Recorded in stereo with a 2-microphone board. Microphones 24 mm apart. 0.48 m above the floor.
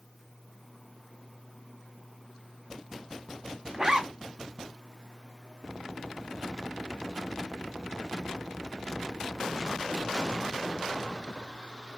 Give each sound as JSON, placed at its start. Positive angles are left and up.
{"t": 3.7, "sound": "a zipper", "side_deg": -25, "distance_m": 1.1}